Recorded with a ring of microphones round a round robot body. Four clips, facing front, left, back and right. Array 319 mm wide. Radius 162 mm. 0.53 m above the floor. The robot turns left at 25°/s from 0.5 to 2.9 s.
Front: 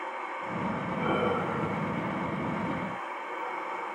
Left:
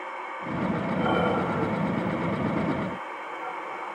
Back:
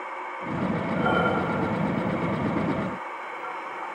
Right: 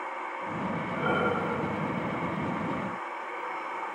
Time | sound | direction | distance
0.9 | breathing | 140° left | 2.5 m